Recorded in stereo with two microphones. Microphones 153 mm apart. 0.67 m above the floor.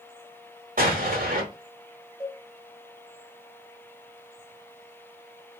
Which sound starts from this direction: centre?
A cowbell, at 2.2 s.